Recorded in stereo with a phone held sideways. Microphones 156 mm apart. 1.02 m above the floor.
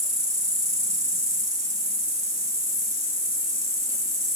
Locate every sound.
0.0 s an insect: 20° right (ahead or behind), 2.5 m